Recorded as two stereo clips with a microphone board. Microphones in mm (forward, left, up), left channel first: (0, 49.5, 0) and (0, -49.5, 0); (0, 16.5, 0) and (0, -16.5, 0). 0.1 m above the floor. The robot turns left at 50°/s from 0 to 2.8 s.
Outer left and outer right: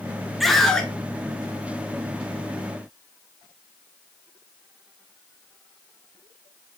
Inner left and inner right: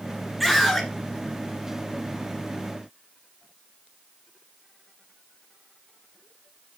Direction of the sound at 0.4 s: Centre (ahead or behind).